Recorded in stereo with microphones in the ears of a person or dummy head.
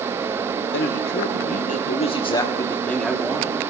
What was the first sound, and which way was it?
A man speaking, 70° left (ahead or behind).